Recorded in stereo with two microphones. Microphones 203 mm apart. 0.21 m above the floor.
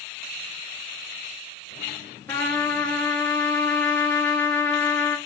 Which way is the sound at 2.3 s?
10° left (ahead or behind).